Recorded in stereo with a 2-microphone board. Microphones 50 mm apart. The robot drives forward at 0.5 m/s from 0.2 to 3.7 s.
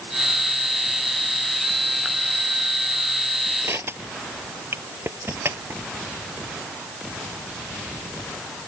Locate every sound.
3.6 s crushing: 55° right (ahead or behind)